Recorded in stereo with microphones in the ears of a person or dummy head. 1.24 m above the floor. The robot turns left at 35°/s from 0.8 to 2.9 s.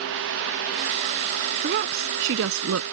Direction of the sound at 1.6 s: 50° right.